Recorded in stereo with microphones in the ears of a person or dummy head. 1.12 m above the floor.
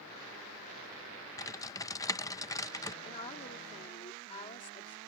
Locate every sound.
1.4 s typing on a keyboard: 15° left (ahead or behind)
3.0 s a woman speaking: 35° left (ahead or behind)